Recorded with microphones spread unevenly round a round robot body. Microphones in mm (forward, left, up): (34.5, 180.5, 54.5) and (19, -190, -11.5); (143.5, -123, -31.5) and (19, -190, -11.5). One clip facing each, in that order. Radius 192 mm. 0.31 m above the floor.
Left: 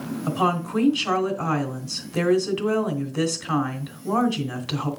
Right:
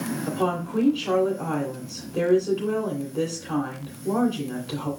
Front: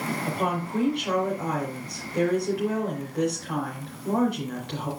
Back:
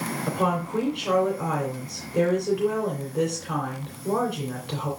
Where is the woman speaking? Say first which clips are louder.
Left 2 dB, back 4 dB; 140° left, 2.5 m.